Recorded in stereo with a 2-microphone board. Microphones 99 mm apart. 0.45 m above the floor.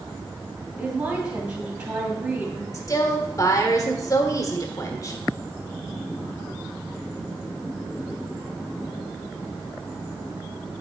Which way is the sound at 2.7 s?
35° left (ahead or behind).